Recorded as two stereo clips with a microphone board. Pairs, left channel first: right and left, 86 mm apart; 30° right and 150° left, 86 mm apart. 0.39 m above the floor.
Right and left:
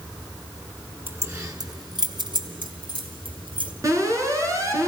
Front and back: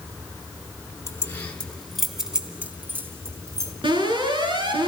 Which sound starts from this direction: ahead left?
Keys jangling, at 1.1 s.